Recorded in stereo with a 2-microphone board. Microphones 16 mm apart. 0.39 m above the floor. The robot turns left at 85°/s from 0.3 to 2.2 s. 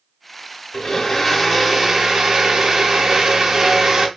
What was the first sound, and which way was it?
A blender, 65° left.